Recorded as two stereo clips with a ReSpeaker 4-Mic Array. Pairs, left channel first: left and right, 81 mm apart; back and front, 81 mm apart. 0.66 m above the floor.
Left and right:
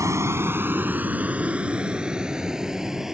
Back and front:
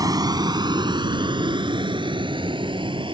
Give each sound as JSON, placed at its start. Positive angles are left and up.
{"t": 0.0, "sound": "a vehicle", "azimuth_deg": -40}